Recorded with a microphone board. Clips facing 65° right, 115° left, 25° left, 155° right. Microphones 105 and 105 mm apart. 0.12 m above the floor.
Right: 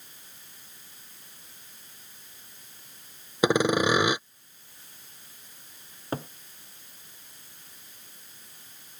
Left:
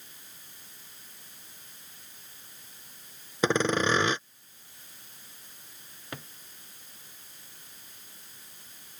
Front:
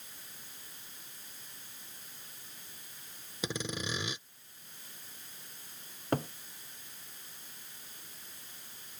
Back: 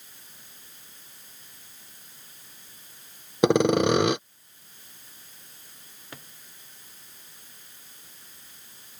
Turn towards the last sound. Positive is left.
turn(degrees=-15)